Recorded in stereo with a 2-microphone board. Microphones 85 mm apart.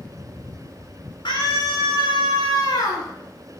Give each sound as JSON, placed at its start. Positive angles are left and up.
{"t": 1.2, "sound": "a scream", "side_deg": 70, "distance_m": 8.0}